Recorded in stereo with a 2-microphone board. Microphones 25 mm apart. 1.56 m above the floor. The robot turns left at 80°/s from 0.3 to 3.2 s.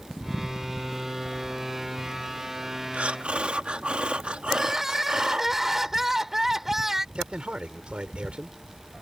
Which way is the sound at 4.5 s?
10° right (ahead or behind).